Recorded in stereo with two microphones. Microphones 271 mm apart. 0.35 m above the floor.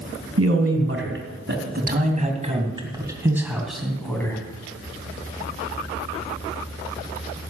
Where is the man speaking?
55° right (ahead or behind), 3 m; by 4.4 s 10° left (ahead or behind), 3 m.